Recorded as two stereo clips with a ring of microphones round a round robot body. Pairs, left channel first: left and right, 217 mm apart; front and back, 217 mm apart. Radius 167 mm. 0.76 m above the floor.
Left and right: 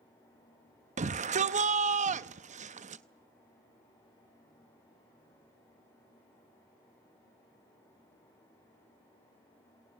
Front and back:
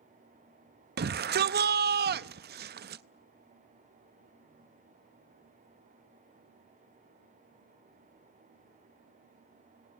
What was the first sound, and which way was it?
A shout, 145° right.